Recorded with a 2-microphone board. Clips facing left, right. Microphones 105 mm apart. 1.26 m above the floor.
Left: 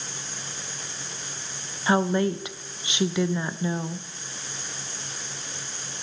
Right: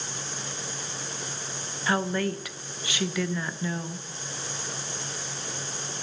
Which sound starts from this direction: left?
A woman speaking, at 1.9 s.